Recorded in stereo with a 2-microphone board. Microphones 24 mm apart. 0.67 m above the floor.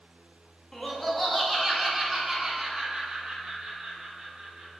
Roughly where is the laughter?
Centre.